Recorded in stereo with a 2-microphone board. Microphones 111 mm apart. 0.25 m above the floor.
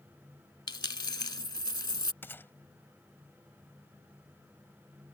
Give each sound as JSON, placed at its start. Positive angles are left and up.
{"t": 0.7, "sound": "a dropped coin", "side_deg": 40}
{"t": 2.2, "sound": "a gunshot", "side_deg": 20}